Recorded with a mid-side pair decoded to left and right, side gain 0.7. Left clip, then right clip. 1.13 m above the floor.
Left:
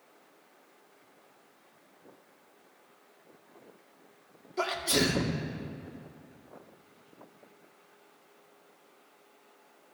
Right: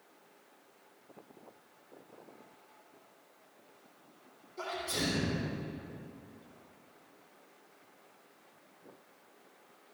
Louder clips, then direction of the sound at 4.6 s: Left 8 dB; 65° left.